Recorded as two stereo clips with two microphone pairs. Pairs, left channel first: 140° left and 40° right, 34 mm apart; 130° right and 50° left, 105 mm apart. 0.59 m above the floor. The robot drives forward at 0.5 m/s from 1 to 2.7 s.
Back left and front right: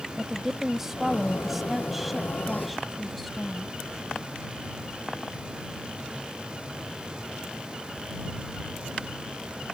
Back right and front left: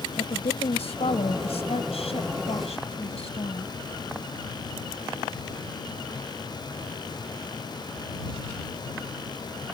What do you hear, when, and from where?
0.2 s a woman speaking: 120° right; by 3.7 s 130° right